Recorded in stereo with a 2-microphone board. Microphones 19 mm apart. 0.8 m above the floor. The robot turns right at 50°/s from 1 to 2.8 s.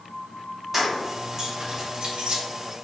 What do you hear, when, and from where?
0.7 s keys jangling: 10° right (ahead or behind), 1.0 m; by 2.4 s 75° right (ahead or behind), 1.0 m